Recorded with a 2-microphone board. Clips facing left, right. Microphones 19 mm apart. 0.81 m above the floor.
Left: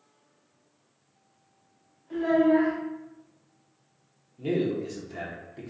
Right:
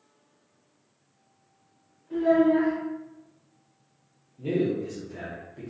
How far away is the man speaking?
About 0.7 m.